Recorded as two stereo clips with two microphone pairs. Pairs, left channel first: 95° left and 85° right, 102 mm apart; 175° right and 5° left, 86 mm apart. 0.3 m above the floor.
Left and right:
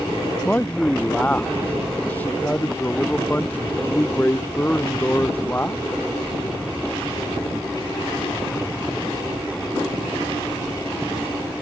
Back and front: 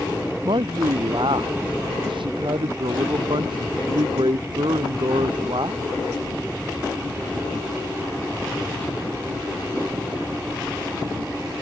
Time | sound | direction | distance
0.4 | a man speaking | 15° left | ?